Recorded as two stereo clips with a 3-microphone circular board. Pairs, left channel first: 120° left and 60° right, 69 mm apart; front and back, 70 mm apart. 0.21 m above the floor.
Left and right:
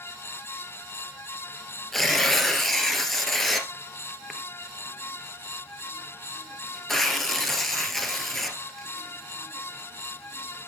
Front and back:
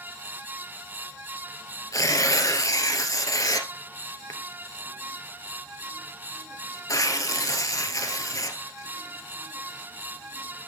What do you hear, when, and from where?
1.9 s tearing paper: 35° left, 1.9 m